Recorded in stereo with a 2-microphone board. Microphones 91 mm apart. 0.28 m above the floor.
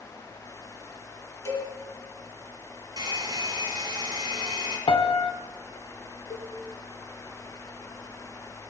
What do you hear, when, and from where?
1.4 s a cowbell: 30° left (ahead or behind), 2.5 m
3.0 s a hair dryer: 45° right (ahead or behind), 3 m
4.9 s a piano: 75° left (ahead or behind), 0.7 m
6.3 s a cowbell: 45° left (ahead or behind), 0.8 m